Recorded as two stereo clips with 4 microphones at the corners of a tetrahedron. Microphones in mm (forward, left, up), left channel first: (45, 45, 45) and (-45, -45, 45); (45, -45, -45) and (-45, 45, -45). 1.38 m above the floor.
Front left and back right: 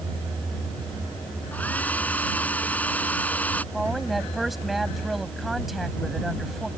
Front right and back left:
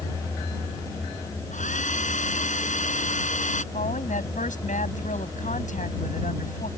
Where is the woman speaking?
45° right.